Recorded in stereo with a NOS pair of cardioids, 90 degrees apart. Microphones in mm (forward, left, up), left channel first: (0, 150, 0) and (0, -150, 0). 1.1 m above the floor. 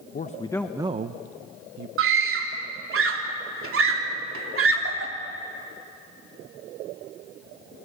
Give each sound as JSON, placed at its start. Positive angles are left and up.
{"t": 0.1, "sound": "a man speaking", "azimuth_deg": 30, "distance_m": 0.9}
{"t": 2.0, "sound": "a scream", "azimuth_deg": -50, "distance_m": 3.5}